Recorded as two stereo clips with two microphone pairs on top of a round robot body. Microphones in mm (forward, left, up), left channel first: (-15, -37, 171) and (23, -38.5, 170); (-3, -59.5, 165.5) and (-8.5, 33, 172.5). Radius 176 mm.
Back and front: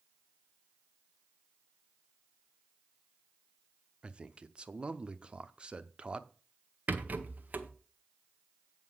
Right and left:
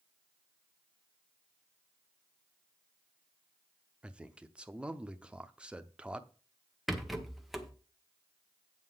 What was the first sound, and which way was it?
A man speaking, 20° left.